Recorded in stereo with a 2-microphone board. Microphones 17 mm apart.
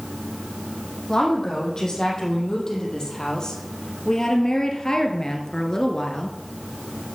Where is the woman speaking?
30° left (ahead or behind), 5.5 m.